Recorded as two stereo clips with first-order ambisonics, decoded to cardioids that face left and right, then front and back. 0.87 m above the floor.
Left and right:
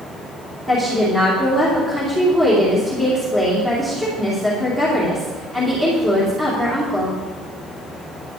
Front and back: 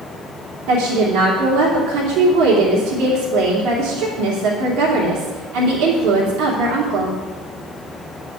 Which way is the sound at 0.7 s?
175° right.